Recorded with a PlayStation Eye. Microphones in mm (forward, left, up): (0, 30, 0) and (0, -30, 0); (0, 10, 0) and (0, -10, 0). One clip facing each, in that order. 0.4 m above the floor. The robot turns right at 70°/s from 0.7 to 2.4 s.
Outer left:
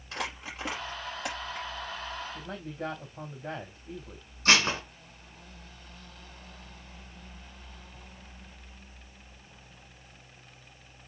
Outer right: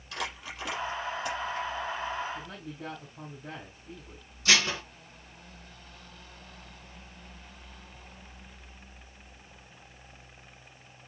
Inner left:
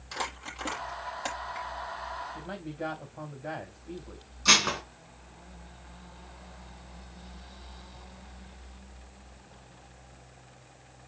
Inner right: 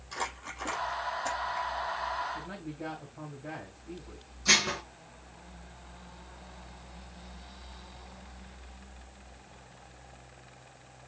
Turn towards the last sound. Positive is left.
turn(degrees=45)  # may be behind; listen again after turning